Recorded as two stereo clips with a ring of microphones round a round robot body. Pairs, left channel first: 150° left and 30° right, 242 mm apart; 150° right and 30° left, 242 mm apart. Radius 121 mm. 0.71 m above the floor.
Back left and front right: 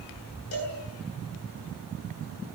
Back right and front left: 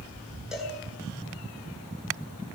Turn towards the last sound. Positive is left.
turn(degrees=120)